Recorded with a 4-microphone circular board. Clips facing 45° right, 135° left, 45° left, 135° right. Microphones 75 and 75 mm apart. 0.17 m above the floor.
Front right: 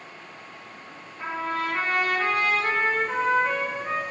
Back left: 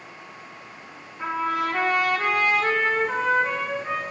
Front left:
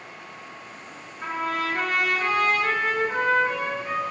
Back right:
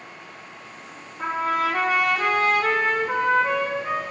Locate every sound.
1.2 s a trumpet: 150° right, 3 m